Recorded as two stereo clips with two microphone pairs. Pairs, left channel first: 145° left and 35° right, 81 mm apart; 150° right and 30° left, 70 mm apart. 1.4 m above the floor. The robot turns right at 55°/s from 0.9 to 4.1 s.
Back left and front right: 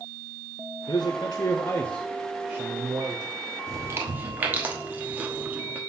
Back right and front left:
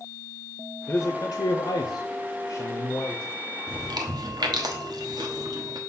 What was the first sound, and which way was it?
A man speaking, 160° left.